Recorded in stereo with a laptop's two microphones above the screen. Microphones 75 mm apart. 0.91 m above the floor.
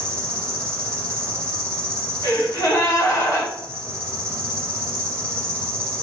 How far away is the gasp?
About 1.4 m.